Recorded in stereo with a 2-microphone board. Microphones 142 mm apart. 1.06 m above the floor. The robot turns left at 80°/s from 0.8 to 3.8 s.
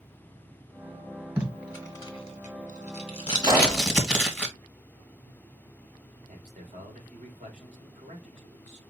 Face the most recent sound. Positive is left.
turn(degrees=-60)  # may be behind; listen again after turning